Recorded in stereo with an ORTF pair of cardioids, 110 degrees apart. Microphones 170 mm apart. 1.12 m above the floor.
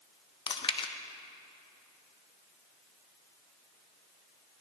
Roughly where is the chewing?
Ahead left.